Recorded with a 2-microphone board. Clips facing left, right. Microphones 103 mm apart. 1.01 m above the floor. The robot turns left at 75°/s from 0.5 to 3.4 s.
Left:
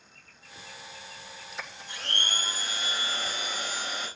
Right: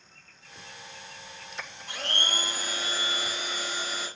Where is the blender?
70° right, 5 m; by 4.1 s 175° left, 5 m.